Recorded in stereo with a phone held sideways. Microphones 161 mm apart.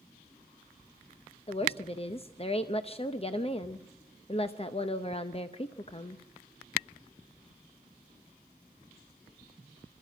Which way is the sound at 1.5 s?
35° left (ahead or behind).